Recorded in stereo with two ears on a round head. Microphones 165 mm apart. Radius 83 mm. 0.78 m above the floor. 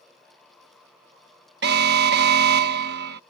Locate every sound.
1.6 s an alarm: 60° right (ahead or behind)